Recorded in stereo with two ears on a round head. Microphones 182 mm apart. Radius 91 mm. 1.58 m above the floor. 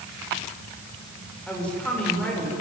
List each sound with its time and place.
1.5 s a woman speaking: 5° left (ahead or behind), 7 m